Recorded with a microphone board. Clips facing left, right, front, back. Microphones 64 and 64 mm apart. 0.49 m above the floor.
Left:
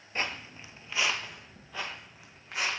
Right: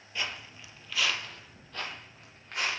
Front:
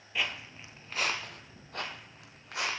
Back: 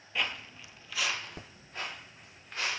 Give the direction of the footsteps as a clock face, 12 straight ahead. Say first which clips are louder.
Left 2 dB, even; 9 o'clock.